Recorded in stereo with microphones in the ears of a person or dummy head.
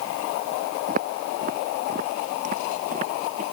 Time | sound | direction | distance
0.9 | footsteps | 40° right (ahead or behind) | ?